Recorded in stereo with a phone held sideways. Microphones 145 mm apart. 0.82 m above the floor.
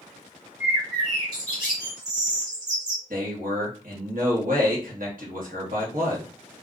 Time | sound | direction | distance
0.6 | a bird | 25° right (ahead or behind) | 1.2 m
3.1 | a man speaking | 70° right (ahead or behind) | 1.1 m